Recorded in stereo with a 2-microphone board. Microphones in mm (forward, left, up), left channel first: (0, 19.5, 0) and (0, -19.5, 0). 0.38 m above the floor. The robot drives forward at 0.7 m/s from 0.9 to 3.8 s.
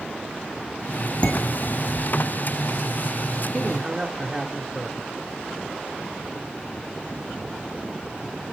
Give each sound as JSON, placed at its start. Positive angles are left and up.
{"t": 1.2, "sound": "dishes clattering", "side_deg": 35, "distance_m": 2.0}
{"t": 3.5, "sound": "a man speaking", "side_deg": -20, "distance_m": 1.0}